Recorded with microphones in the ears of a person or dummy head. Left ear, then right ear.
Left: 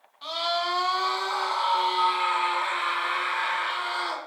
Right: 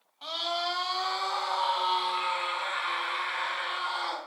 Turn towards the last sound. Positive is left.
turn(degrees=35)  # may be behind; listen again after turning